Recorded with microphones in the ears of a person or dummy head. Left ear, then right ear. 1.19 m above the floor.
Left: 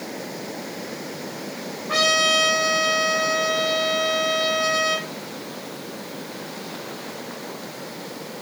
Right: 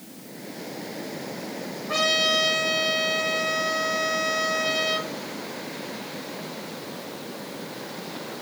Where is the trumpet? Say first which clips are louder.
Left 3 dB; 25° left (ahead or behind), 3.5 m.